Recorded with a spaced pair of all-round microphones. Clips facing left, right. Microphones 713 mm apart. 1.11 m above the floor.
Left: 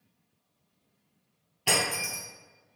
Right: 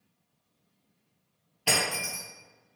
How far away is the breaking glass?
About 1.7 m.